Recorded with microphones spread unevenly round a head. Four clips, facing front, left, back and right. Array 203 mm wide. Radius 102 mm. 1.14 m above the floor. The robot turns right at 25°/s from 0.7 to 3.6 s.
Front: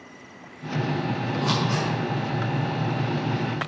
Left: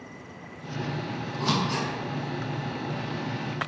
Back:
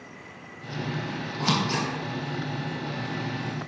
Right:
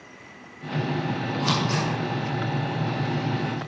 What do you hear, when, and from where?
1.4 s scissors: 165° right, 3.5 m; by 1.9 s 150° right, 3.5 m